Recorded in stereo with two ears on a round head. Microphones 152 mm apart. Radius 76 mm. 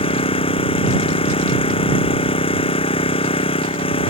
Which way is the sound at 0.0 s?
35° left (ahead or behind).